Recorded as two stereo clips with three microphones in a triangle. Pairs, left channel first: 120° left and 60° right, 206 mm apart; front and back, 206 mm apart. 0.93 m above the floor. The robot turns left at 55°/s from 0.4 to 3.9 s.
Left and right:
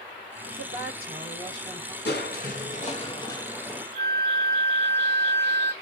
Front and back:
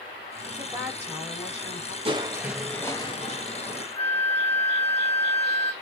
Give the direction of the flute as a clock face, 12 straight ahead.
10 o'clock.